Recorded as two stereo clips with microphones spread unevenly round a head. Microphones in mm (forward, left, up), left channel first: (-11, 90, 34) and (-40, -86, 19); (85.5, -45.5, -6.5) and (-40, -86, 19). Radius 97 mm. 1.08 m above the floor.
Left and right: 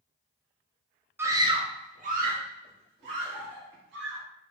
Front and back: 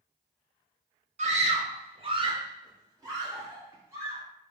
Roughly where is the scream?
Behind.